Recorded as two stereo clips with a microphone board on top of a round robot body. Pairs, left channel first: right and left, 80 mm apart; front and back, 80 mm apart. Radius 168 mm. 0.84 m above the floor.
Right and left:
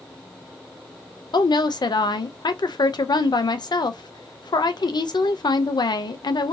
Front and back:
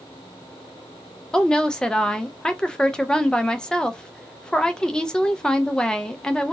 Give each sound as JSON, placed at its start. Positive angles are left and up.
{"t": 1.3, "sound": "a woman speaking", "azimuth_deg": -80, "distance_m": 0.7}